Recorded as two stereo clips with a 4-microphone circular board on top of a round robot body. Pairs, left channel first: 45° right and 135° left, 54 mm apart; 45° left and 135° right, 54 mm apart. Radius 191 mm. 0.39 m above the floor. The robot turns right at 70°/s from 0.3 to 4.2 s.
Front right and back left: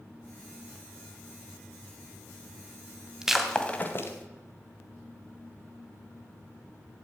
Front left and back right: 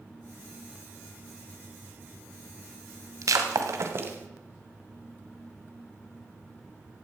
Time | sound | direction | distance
3.2 | breaking glass | 150° right | 1.8 m